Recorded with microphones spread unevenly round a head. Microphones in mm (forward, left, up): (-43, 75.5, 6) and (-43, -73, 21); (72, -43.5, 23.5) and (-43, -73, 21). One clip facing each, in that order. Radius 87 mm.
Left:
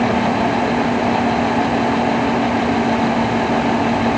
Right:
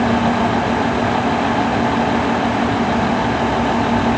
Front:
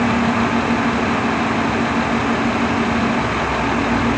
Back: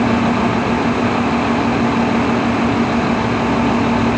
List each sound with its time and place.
Only background noise.